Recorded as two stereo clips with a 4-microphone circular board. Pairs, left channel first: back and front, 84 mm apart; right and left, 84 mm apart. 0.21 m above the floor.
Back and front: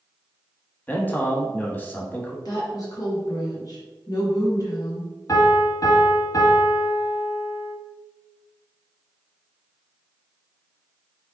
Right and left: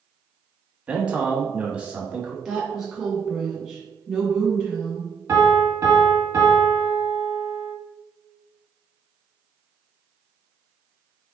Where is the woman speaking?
175° left, 1.7 m.